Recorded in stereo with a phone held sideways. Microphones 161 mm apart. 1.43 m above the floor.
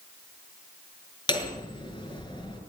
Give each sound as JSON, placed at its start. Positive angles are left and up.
{"t": 1.3, "sound": "hammering", "side_deg": 30, "distance_m": 6.0}